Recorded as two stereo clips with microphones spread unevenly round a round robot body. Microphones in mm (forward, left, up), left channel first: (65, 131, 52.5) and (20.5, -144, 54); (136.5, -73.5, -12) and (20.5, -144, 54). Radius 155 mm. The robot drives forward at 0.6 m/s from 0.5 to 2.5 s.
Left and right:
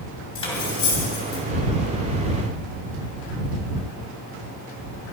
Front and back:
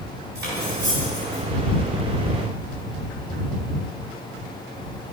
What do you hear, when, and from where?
0.3 s cutlery clinking: 155° left, 2 m; by 1.4 s 160° left, 2.5 m